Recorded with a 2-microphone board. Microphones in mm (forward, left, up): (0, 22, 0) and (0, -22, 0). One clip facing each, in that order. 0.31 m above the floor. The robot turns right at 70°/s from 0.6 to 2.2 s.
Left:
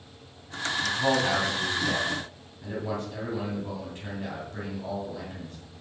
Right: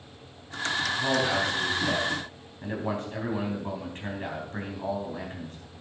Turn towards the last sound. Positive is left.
turn(degrees=-135)